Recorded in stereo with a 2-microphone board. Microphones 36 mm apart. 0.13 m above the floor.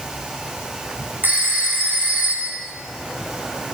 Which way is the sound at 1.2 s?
45° right (ahead or behind).